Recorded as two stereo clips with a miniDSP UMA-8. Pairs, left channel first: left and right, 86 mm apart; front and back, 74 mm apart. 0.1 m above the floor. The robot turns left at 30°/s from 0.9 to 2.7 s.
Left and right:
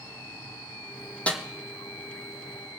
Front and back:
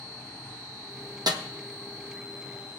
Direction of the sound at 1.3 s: 165° left.